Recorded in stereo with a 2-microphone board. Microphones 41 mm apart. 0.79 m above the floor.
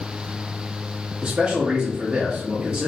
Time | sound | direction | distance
1.2 | a man speaking | 20° right (ahead or behind) | 0.8 m